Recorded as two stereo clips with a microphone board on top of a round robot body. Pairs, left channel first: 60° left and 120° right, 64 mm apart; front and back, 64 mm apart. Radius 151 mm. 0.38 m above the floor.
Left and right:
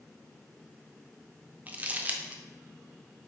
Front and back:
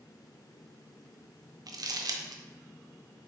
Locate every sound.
1.7 s crumpling: 175° left, 0.5 m